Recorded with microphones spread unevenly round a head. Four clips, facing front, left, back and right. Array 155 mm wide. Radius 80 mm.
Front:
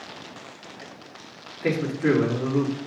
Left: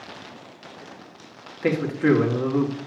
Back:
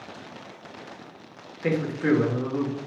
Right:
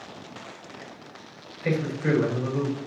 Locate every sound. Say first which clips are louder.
1.6 s a man speaking: left 5 dB, front 2 dB; 90° left, 3 m